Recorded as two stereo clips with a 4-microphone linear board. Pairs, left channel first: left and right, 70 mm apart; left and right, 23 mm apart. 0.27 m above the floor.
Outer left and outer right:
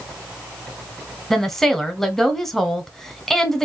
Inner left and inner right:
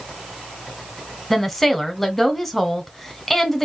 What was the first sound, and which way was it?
A woman speaking, 5° left (ahead or behind).